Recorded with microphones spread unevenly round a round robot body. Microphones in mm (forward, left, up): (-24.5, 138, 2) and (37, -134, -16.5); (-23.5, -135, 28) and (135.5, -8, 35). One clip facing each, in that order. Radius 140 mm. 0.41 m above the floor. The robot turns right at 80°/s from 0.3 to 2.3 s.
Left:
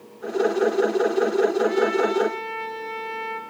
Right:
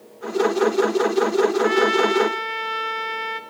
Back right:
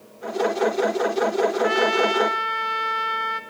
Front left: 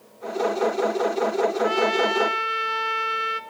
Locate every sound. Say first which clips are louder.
1.6 s a trumpet: right 2 dB, back right 1 dB; 75° right, 1.5 m; by 3.4 s 20° right, 1.5 m